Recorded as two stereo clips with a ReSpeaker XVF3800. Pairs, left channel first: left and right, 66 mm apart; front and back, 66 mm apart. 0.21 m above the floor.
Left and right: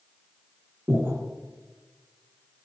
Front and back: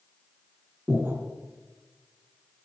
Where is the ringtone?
No ringtone in this recording.